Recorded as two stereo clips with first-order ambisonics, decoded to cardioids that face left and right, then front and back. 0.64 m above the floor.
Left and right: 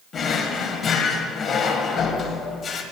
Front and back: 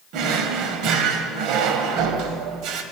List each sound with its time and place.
0.1 s a drawer: 155° left, 0.9 m